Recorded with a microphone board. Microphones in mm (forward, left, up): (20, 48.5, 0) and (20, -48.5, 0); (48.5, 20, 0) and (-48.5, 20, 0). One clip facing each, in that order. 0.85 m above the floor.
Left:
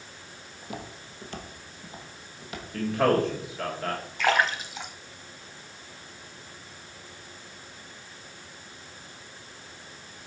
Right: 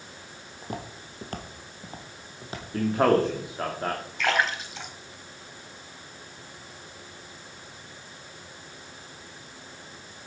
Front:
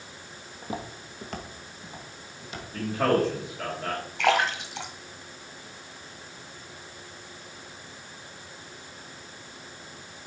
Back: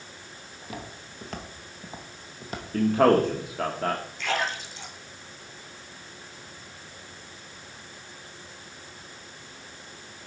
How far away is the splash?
About 1.8 m.